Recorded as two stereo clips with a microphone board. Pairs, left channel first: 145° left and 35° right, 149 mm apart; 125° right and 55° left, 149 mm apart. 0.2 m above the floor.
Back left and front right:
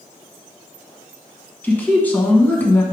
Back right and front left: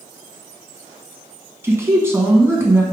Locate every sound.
1.6 s a man speaking: 90° left, 1.2 m